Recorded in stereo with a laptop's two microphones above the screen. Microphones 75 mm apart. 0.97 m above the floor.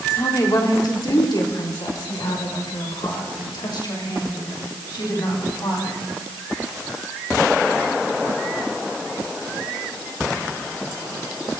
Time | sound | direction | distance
0.1 | a woman speaking | 50° left (ahead or behind) | 2 m